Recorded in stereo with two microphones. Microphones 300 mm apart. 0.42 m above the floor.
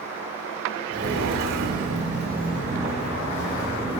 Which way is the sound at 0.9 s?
50° right (ahead or behind).